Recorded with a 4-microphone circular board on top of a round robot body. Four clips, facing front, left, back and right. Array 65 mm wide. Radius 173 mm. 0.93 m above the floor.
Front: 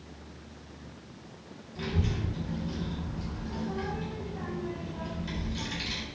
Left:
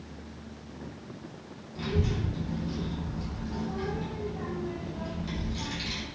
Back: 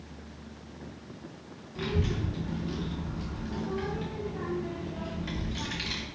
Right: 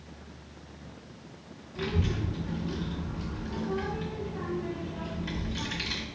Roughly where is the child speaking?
Behind right.